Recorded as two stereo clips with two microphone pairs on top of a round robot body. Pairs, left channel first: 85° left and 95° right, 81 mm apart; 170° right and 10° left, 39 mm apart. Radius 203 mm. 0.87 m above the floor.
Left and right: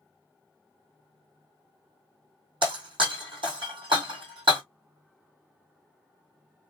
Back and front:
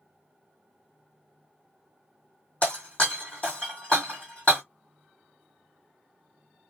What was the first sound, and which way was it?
Breaking glass, 115° right.